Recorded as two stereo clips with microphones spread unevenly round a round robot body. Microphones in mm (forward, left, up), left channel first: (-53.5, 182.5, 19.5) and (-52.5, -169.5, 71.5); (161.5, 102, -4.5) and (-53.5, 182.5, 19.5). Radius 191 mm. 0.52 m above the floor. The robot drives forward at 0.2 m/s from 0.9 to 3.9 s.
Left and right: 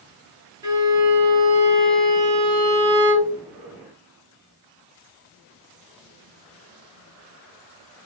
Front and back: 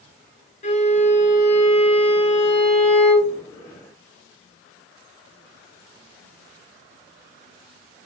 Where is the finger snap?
I don't hear a finger snap.